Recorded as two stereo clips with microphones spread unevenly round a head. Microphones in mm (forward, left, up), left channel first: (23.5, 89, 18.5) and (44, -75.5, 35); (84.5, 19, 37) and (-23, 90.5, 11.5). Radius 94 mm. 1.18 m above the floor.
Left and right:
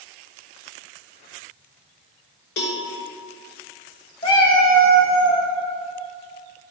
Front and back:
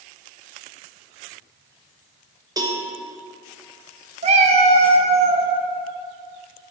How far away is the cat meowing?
About 0.7 m.